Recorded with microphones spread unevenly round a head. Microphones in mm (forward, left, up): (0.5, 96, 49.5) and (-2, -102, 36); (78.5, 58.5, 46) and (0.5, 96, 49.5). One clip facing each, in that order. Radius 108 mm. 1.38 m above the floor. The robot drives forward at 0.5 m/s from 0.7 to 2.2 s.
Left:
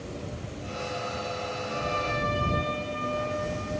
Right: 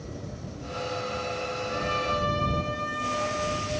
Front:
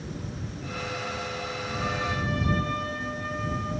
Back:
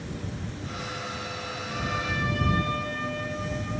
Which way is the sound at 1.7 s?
170° right.